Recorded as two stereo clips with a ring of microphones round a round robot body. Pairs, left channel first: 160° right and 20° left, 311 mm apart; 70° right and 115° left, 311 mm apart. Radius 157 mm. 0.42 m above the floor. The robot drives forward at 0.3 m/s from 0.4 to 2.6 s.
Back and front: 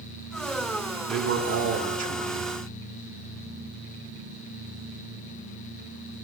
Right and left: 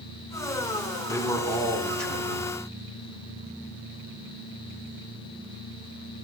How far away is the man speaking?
About 1.4 m.